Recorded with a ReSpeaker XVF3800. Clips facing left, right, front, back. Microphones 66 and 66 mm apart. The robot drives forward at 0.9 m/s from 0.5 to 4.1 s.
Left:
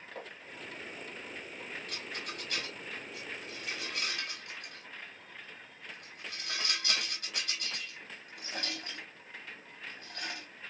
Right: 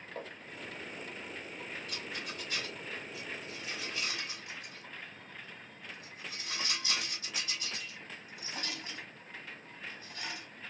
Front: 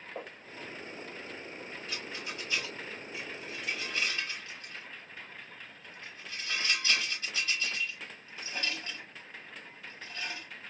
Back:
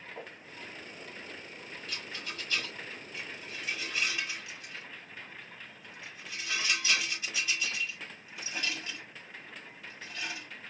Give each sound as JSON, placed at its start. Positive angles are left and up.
{"t": 0.1, "sound": "footsteps", "azimuth_deg": 5, "distance_m": 2.5}
{"t": 1.9, "sound": "a rattle", "azimuth_deg": 60, "distance_m": 3.5}